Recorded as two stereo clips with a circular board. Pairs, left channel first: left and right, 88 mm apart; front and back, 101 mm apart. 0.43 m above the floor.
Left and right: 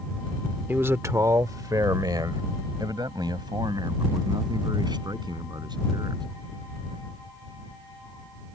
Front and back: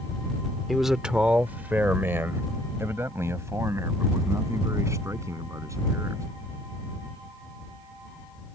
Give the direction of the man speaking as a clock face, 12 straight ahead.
3 o'clock.